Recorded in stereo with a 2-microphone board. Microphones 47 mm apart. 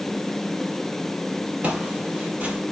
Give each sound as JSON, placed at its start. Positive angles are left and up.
{"t": 1.6, "sound": "footsteps", "side_deg": -35, "distance_m": 1.5}